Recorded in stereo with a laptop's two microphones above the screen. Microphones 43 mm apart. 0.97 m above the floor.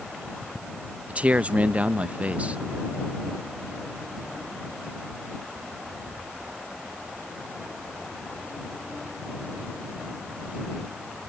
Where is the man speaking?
30° right (ahead or behind).